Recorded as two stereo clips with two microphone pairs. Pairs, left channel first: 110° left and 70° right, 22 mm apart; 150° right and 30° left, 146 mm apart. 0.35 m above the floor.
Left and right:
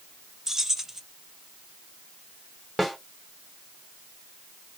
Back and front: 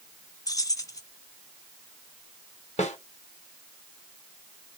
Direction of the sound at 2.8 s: 150° right.